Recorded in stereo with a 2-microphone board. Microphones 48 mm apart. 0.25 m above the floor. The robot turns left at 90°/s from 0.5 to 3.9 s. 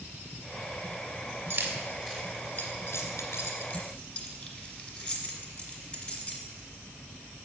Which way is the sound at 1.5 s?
60° right (ahead or behind).